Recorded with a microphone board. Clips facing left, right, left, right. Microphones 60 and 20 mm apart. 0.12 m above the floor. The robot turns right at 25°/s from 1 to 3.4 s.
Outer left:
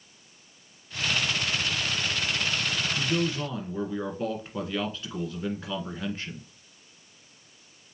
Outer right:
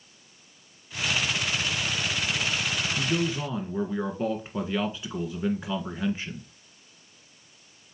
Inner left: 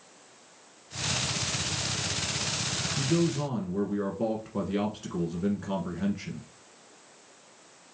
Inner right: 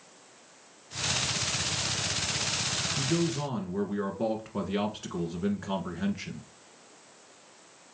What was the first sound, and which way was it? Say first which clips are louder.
A man speaking: even, inner left 4 dB; 10° right (ahead or behind).